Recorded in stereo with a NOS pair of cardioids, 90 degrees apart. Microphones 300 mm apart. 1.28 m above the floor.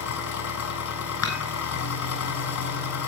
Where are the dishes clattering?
65° left, 7.5 m.